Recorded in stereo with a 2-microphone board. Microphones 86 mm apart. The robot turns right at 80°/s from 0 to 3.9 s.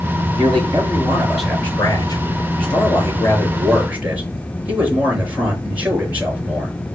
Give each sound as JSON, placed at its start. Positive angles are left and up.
{"t": 0.3, "sound": "a man speaking", "azimuth_deg": -85, "distance_m": 4.5}